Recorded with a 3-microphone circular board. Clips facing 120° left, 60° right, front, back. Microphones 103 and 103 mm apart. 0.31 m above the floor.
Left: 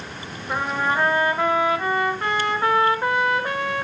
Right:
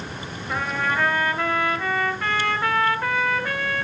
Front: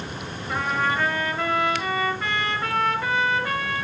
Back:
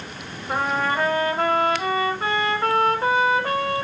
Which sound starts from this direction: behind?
A trumpet, at 0.5 s.